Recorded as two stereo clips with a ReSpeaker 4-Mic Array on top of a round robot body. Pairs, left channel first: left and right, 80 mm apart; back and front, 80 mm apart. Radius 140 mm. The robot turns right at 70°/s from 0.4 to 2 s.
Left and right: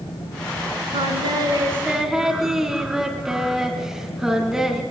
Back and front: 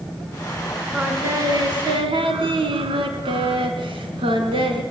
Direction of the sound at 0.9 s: 80° right.